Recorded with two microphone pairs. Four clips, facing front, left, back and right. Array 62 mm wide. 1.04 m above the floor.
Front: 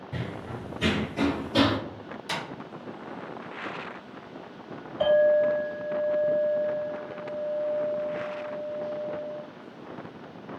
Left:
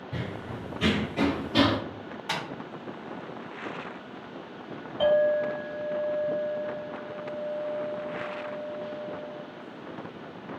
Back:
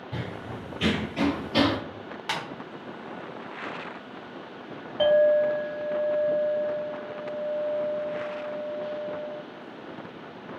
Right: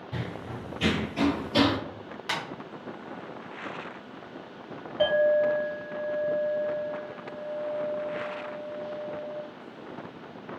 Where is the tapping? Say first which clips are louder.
Right 1 dB, back 2 dB; 165° right, 1.4 m.